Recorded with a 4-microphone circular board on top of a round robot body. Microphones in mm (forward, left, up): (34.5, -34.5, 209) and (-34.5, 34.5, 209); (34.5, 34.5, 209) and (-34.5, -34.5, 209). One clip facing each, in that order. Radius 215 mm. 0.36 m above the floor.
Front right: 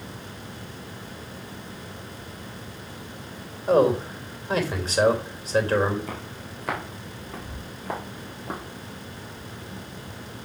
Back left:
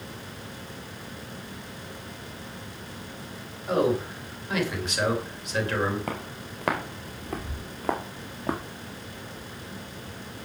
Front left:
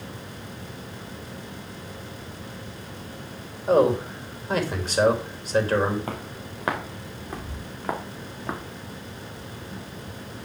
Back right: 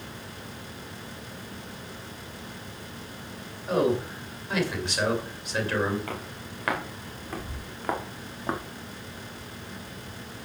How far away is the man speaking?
About 3 m.